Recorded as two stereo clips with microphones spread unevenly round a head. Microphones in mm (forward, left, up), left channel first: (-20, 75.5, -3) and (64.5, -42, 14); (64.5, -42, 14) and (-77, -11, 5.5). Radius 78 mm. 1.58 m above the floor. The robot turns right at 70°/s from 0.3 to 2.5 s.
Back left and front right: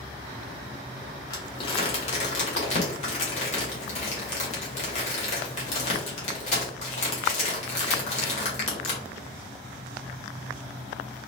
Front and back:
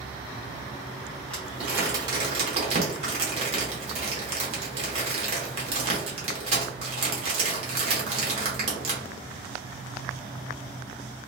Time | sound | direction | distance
1.3 | crumpling | 60° left | 0.9 m